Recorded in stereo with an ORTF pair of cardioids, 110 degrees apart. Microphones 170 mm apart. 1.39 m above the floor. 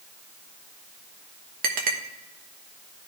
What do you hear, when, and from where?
1.6 s a clink: 60° right, 1.2 m